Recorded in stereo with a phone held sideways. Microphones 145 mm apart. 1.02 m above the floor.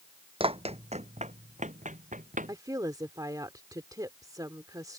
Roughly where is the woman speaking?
Right.